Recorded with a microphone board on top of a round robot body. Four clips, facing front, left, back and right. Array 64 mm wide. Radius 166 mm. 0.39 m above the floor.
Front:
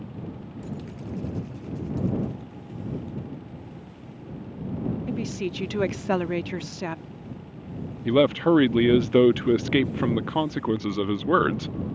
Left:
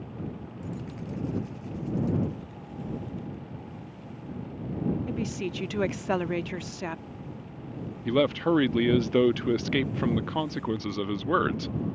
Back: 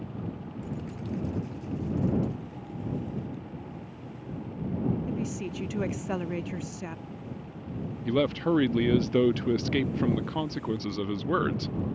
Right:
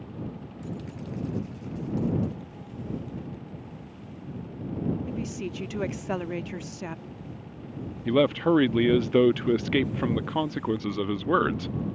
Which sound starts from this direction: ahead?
A man speaking, at 8.1 s.